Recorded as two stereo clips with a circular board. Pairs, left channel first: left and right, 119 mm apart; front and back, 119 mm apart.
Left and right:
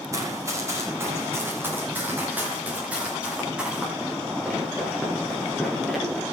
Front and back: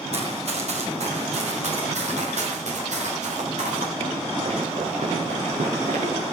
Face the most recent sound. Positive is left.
turn(degrees=175)